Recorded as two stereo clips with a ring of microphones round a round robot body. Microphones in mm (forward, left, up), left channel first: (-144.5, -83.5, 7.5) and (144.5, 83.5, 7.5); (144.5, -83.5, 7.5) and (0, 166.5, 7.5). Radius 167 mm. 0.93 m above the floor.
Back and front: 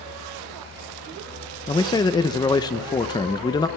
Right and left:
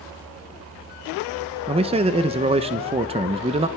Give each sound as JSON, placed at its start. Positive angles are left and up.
{"t": 1.7, "sound": "a man speaking", "azimuth_deg": 150, "distance_m": 0.7}